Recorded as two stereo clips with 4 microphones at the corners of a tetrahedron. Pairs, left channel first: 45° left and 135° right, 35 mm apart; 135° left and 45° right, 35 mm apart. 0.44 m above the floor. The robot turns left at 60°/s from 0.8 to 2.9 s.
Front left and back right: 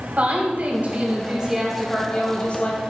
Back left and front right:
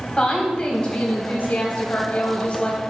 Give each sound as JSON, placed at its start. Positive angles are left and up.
{"t": 0.2, "sound": "a woman speaking", "azimuth_deg": -170, "distance_m": 3.0}